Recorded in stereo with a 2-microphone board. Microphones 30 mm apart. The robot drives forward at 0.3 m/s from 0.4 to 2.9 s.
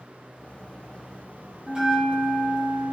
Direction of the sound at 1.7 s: 35° right (ahead or behind).